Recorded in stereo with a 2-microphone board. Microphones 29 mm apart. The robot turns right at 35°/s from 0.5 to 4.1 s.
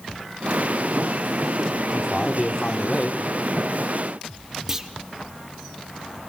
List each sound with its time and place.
1.9 s a man speaking: 25° left, 1.2 m; by 3.2 s 70° left, 1.2 m
4.7 s a clunk: 10° right (ahead or behind), 1.0 m